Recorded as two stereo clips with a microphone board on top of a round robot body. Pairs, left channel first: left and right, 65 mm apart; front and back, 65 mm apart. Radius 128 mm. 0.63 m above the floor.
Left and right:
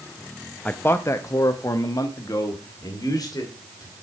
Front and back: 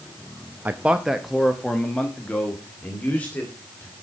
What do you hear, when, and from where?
0.7 s a man speaking: 140° left, 0.7 m; by 3.9 s 70° left, 2.5 m